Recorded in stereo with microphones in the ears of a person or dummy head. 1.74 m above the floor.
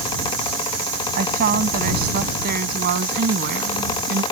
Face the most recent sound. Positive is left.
turn(degrees=-70)  # may be behind; listen again after turning